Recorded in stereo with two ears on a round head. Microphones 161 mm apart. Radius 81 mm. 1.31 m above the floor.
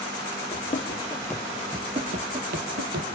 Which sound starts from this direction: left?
Running footsteps, at 0.5 s.